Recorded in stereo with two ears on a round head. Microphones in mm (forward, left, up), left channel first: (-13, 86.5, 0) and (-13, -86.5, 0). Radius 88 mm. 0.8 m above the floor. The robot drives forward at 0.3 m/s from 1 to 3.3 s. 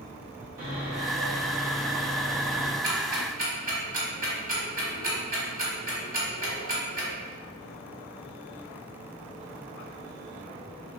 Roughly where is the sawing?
Right.